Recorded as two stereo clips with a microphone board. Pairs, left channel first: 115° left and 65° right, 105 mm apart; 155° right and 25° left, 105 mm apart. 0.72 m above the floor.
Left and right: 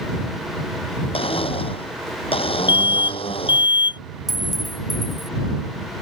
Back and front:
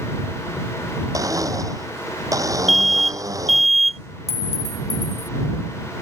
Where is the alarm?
115° left.